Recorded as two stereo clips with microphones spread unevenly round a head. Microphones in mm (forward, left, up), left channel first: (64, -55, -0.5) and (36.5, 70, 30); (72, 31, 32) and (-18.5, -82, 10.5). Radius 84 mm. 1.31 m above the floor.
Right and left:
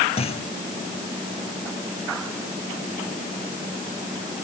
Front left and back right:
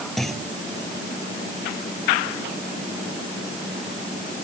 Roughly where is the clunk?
Ahead right.